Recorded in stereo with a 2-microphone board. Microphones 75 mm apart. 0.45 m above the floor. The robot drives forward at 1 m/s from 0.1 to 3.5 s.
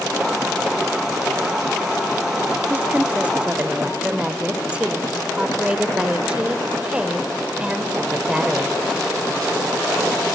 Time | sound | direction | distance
2.7 | a woman speaking | 20° right (ahead or behind) | 0.7 m